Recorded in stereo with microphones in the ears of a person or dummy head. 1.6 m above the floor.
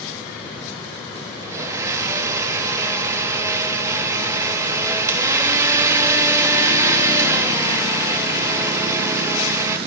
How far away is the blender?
About 0.9 m.